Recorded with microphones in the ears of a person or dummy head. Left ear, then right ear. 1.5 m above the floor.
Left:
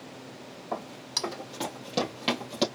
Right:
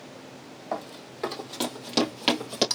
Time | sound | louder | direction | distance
0.7 | running footsteps | left 2 dB | 45° right (ahead or behind) | 3.5 m